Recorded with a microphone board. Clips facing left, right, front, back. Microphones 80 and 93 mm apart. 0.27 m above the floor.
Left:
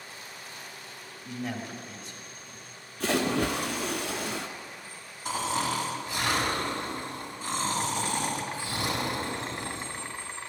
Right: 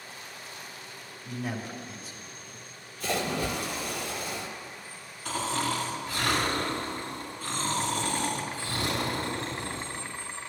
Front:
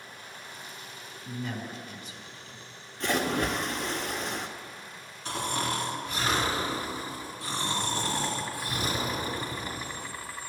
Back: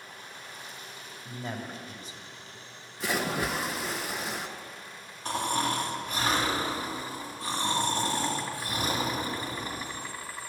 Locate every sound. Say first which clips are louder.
1.2 s a man speaking: even, front 1 dB; 170° right, 1.8 m
3.0 s a splash: left 3 dB, front 2 dB; 95° left, 0.9 m
5.2 s snoring: left 1 dB, back 2 dB; 155° left, 2.5 m